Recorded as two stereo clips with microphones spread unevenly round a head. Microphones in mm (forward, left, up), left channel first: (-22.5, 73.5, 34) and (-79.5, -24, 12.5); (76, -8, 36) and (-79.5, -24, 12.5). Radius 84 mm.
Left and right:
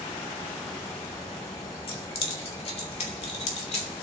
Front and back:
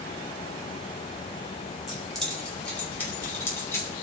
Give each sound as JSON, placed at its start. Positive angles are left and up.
{"t": 1.9, "sound": "keys jangling", "azimuth_deg": 95, "distance_m": 2.5}